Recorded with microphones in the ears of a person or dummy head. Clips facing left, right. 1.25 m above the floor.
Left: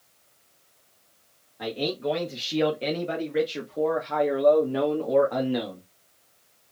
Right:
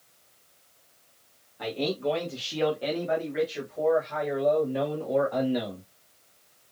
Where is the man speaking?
10° left (ahead or behind), 1.6 m; by 5.8 s 80° left, 1.7 m.